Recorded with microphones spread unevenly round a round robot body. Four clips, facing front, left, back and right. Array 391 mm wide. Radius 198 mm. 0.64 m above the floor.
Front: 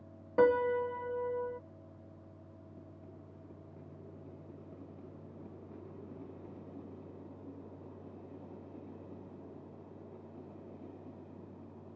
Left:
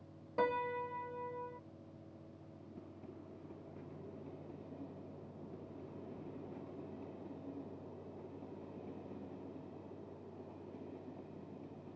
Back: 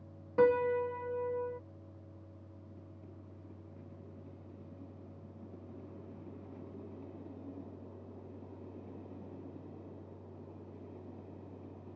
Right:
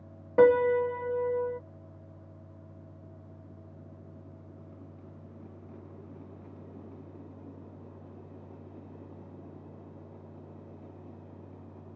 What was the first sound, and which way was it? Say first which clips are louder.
A piano: right 15 dB, even; 75° right.